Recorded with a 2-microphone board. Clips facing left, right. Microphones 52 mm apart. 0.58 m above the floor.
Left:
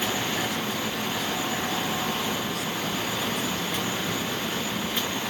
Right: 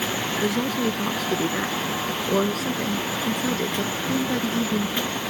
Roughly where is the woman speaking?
Right.